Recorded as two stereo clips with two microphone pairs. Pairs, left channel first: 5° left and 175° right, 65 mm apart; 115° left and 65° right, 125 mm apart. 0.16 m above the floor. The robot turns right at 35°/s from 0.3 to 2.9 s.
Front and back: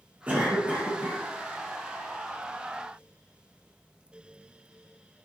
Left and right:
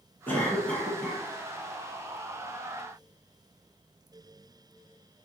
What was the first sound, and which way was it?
A cough, 170° left.